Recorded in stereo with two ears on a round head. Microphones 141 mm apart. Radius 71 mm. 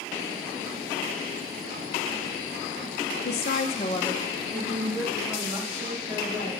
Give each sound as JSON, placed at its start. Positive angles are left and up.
{"t": 3.2, "sound": "a woman speaking", "side_deg": 75, "distance_m": 0.8}